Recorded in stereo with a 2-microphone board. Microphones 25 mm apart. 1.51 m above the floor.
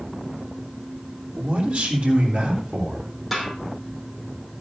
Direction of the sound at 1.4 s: 65° right (ahead or behind).